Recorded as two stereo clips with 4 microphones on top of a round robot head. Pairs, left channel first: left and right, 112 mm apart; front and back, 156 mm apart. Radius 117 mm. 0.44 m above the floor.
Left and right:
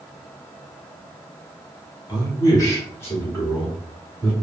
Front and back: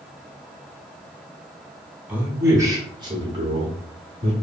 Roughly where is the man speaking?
Left.